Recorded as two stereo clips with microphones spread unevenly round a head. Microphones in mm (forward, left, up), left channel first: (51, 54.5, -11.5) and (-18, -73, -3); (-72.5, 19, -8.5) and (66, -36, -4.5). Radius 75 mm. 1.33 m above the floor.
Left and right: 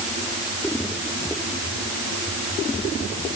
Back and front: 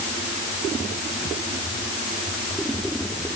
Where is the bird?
No bird in this recording.